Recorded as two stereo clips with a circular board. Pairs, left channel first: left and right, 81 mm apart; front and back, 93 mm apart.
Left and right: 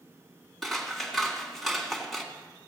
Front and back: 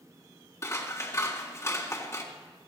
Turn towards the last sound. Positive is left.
turn(degrees=5)